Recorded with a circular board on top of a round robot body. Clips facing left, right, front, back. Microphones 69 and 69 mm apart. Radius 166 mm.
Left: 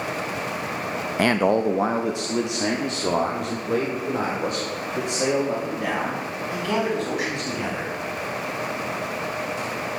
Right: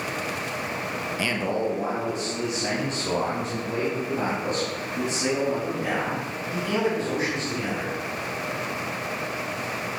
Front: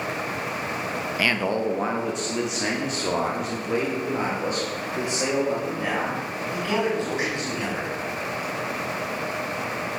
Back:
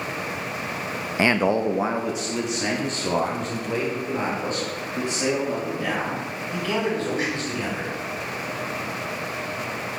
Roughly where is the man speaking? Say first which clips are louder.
Left 8 dB, back 4 dB; behind left.